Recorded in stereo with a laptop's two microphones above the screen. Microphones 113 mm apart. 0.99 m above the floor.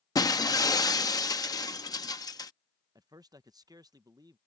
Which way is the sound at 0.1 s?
35° left (ahead or behind).